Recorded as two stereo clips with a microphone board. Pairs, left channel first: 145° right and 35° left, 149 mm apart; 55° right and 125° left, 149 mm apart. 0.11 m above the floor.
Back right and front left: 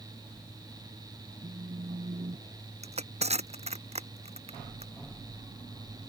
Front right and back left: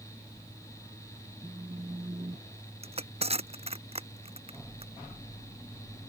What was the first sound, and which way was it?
A phone buzzing, 65° left.